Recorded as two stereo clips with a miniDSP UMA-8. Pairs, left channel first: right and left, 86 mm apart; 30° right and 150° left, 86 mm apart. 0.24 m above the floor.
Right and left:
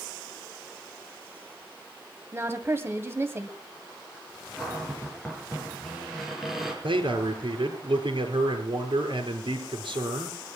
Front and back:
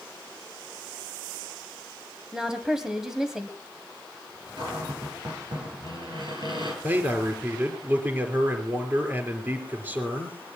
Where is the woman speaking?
75° left, 1.7 m.